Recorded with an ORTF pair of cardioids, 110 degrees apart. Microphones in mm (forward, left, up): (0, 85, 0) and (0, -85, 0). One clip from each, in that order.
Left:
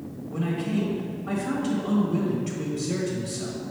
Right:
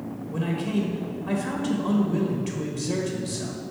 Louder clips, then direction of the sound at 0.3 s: Even; 30° right.